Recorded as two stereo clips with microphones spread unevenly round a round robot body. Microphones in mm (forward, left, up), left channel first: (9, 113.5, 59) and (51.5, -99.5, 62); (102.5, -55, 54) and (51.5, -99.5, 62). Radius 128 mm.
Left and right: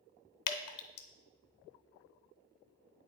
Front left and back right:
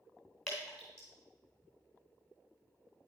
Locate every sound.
0.5 s dripping: 125° left, 0.6 m